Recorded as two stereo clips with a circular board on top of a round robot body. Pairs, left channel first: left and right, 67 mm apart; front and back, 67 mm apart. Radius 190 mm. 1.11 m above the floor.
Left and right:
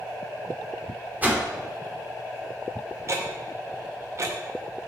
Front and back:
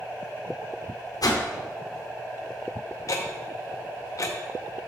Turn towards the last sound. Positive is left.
turn(degrees=-40)